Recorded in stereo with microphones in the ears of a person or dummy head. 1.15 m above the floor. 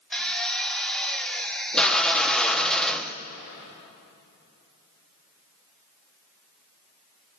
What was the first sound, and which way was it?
A drill, 5° left (ahead or behind).